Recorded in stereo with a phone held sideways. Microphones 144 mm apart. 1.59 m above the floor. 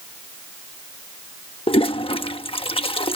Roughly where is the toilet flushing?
Left.